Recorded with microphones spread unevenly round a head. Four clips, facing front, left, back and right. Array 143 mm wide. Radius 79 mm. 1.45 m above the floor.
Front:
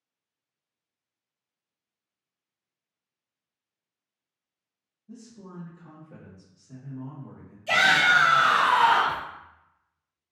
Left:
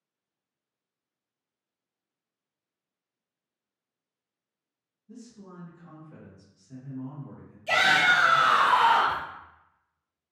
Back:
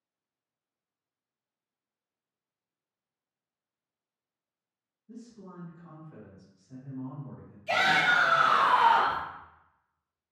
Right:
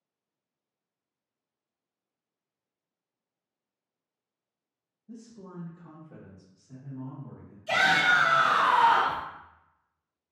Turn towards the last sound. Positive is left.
turn(degrees=40)